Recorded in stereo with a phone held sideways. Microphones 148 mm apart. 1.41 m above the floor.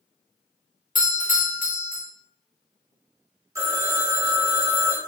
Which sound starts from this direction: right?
A phone ringing, at 3.5 s.